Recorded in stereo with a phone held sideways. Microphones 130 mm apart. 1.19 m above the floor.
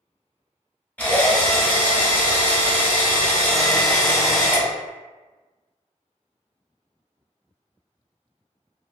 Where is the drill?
10° left (ahead or behind), 1.0 m.